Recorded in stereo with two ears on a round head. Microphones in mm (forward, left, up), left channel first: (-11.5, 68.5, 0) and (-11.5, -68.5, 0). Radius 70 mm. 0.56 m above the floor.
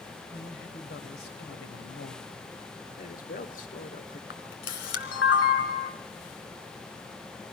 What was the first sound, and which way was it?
A man speaking, 70° left (ahead or behind).